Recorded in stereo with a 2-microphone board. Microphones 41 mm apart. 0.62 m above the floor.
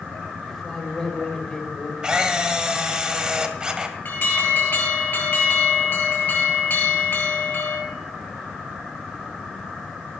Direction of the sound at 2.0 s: 20° right (ahead or behind).